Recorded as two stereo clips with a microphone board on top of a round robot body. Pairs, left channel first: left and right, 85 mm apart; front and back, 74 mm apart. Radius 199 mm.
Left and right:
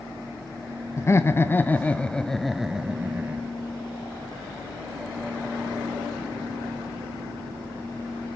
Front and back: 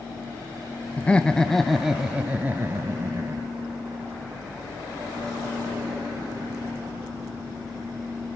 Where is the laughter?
60° left, 1.2 m; by 3.5 s 155° right, 1.3 m.